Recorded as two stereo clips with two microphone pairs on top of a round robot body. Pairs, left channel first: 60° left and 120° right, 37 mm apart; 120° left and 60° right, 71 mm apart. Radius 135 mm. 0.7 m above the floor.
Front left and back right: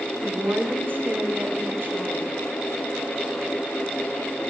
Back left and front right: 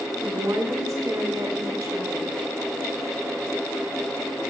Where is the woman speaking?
95° right, 7.5 m.